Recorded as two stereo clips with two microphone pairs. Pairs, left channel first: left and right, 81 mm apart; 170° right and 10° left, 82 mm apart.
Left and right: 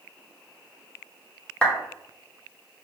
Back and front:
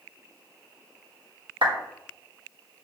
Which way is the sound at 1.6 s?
10° left.